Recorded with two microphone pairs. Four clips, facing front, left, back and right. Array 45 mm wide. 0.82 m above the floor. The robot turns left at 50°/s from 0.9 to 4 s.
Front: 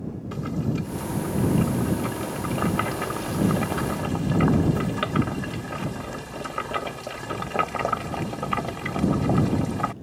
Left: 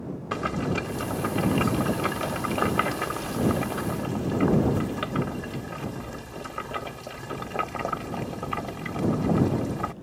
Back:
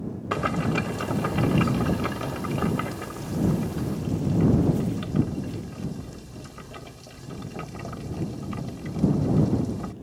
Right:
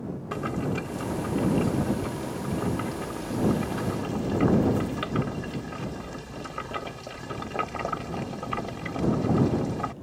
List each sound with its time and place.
0.3 s boiling: 160° left; by 9.9 s 5° left